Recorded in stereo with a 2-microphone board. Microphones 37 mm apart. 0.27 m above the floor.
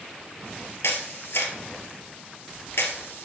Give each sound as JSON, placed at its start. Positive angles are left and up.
{"t": 0.8, "sound": "a camera shutter", "side_deg": 85, "distance_m": 1.7}